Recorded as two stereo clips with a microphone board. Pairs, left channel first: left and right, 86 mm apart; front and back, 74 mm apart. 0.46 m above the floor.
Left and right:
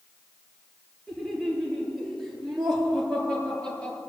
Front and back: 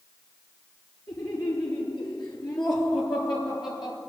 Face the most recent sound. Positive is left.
turn(degrees=15)